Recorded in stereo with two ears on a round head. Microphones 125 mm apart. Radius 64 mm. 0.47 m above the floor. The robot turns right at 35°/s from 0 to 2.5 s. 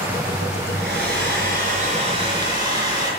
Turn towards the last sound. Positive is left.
turn(degrees=-25)